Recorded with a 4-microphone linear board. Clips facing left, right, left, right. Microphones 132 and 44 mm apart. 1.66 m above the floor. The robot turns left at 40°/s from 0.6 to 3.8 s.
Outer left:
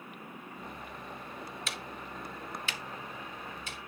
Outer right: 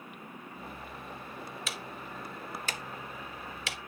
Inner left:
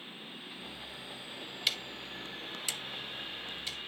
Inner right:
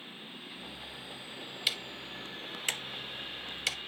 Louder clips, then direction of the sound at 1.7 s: Even, even; centre (ahead or behind).